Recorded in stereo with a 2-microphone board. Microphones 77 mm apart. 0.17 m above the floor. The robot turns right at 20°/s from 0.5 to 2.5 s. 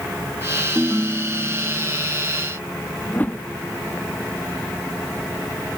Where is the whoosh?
20° left (ahead or behind).